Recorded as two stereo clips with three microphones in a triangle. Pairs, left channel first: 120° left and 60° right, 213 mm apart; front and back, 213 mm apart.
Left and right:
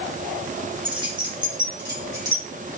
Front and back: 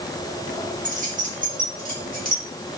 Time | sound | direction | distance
0.8 | keys jangling | 125° right | 1.6 m